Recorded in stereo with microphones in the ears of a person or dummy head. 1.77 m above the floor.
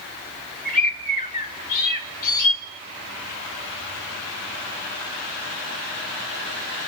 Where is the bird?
45° left (ahead or behind), 2.5 m.